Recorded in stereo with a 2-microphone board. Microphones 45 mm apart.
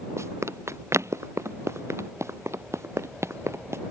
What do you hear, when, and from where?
0.2 s running footsteps: 90° right; by 3.8 s 75° right (ahead or behind)